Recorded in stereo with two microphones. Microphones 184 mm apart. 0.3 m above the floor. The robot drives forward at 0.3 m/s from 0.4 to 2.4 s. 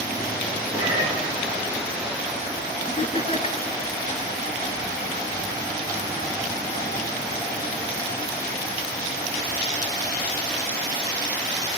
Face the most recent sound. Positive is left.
turn(degrees=30)  # may be behind; listen again after turning